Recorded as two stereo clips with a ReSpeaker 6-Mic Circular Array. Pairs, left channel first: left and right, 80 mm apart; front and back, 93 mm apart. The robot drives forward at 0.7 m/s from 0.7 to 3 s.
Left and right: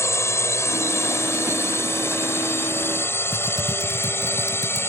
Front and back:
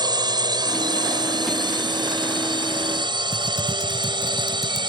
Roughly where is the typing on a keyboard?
Behind left.